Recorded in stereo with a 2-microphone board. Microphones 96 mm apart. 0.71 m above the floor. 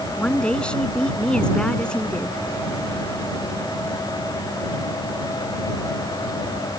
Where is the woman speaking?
10° left (ahead or behind).